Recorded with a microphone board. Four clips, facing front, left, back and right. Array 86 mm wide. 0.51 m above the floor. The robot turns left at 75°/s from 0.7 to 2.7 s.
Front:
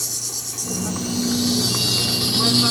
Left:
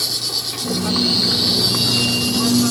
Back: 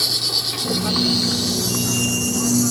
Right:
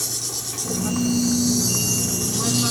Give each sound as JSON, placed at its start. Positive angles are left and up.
{"t": 0.0, "sound": "an insect", "azimuth_deg": 150}